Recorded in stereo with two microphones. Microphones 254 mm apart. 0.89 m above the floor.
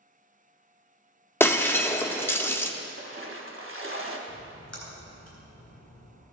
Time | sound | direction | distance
1.4 | breaking glass | 10° left (ahead or behind) | 0.5 m
2.8 | a splash | 55° right (ahead or behind) | 1.0 m
4.3 | a splash | 80° left | 3.5 m